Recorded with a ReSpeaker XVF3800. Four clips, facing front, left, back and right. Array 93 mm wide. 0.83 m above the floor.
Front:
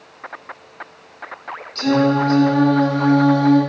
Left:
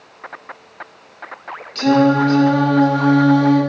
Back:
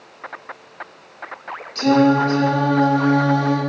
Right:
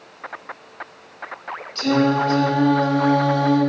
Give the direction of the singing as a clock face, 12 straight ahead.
9 o'clock.